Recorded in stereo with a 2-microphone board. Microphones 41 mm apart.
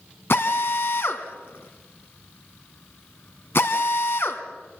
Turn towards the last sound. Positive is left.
turn(degrees=65)  # may be behind; listen again after turning